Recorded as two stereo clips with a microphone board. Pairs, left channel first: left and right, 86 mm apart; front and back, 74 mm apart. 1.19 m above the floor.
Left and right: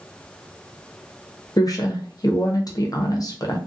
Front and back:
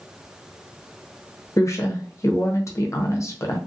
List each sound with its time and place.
1.6 s a woman speaking: 45° left, 0.7 m